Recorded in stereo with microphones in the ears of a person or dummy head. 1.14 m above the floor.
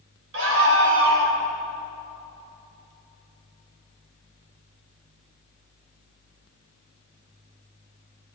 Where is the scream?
70° right (ahead or behind), 5 m; by 1.4 s 75° right (ahead or behind), 4 m.